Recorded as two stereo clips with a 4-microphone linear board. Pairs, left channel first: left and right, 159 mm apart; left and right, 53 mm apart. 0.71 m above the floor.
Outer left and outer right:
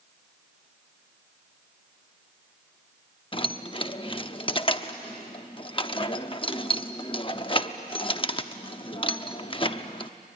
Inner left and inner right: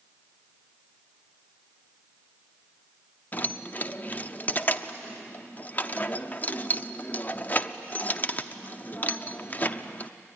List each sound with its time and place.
3.3 s keys jangling: 35° left (ahead or behind), 0.7 m